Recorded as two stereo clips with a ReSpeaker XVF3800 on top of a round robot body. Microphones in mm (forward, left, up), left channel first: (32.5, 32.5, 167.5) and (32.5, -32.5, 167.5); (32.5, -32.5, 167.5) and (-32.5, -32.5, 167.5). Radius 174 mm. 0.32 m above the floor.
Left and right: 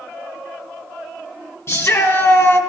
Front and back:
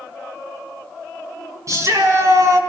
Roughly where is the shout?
Behind left.